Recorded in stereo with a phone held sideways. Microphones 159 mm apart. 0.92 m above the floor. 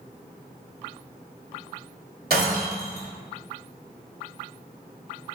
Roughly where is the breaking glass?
Right.